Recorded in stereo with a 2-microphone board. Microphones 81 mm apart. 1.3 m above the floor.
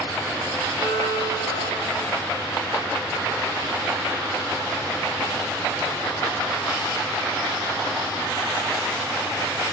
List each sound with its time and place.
0.8 s a violin: 65° left (ahead or behind), 2 m